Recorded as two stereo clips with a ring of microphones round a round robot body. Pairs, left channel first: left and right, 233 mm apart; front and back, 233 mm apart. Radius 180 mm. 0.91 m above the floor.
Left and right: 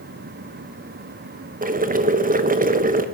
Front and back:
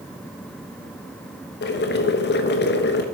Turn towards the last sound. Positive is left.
turn(degrees=-40)